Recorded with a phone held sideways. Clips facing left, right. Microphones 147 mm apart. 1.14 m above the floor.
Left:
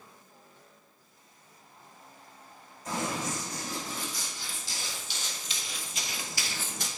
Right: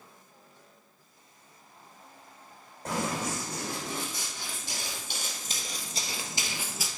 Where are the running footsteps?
75° right (ahead or behind), 4 m; by 6.9 s centre (ahead or behind), 1.2 m.